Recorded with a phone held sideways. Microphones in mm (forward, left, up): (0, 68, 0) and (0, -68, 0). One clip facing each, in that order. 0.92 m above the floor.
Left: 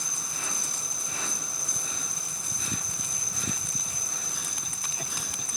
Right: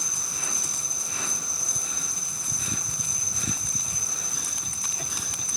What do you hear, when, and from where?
0.0 s an insect: 80° right, 3 m